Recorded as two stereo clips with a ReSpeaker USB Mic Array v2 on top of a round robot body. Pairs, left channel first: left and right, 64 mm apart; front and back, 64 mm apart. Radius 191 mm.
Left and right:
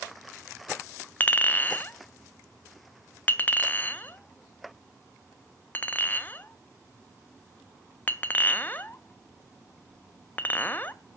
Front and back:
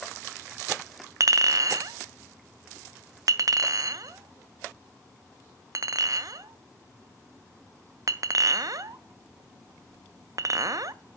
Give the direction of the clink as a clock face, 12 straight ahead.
7 o'clock.